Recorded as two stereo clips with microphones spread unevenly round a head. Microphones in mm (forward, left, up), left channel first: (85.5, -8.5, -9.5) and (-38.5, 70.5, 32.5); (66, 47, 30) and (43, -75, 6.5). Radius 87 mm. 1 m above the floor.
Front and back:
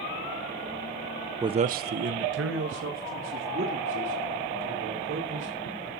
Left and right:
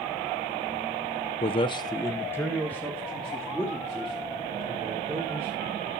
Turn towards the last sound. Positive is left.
turn(degrees=170)